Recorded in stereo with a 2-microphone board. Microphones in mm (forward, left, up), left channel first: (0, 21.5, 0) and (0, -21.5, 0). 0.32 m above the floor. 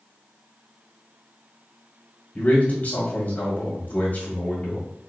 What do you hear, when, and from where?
2.4 s a man speaking: 45° left (ahead or behind), 1.6 m